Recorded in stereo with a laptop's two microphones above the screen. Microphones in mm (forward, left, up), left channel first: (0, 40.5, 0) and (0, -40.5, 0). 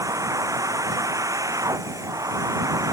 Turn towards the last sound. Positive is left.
turn(degrees=-40)  # may be behind; listen again after turning